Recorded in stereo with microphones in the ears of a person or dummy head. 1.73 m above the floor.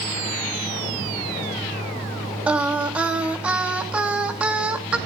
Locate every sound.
2.5 s singing: 5° right (ahead or behind), 2.5 m